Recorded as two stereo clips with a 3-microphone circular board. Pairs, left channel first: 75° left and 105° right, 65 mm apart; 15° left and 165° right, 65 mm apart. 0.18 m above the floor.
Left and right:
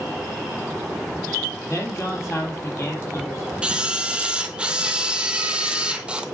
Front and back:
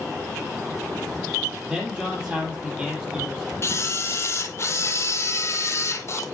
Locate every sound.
1.7 s a man speaking: 120° left, 6 m
3.6 s a camera shutter: 30° right, 0.8 m